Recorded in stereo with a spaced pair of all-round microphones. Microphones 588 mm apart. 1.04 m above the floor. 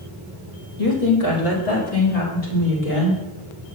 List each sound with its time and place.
0.8 s a woman speaking: 75° left (ahead or behind), 1.9 m; by 3.2 s 85° left, 4 m